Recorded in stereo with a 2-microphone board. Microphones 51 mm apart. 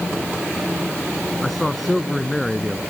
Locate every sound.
1.4 s a man speaking: centre (ahead or behind)